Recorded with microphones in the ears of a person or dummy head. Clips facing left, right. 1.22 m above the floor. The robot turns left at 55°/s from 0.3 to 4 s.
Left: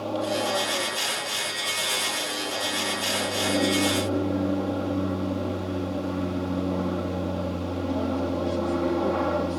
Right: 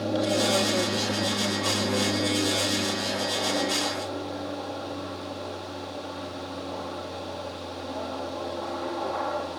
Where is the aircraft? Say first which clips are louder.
Right 2 dB; 20° right; by 9.6 s 140° left.